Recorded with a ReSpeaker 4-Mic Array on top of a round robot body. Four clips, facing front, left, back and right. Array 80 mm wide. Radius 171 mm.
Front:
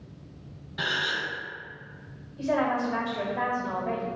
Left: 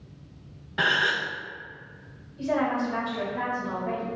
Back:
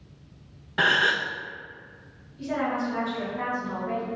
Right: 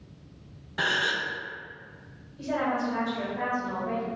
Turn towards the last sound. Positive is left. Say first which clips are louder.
# left 2 dB, front 2 dB
turn(degrees=15)